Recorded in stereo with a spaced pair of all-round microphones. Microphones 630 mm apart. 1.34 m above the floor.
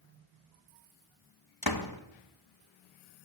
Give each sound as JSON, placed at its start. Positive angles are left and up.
{"t": 1.6, "sound": "a door slam", "side_deg": 35, "distance_m": 1.5}